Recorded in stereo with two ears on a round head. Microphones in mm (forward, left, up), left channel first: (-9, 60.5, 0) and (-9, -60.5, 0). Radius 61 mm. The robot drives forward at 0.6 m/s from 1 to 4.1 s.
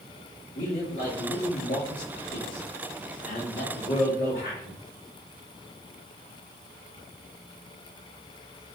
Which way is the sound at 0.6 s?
60° left (ahead or behind).